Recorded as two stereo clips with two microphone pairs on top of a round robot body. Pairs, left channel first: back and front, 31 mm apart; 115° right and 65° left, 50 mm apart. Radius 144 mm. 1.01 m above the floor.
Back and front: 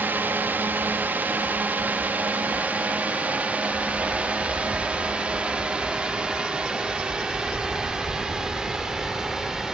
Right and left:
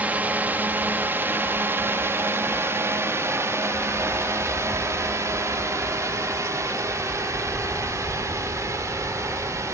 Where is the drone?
10° left; by 9.8 s 75° left.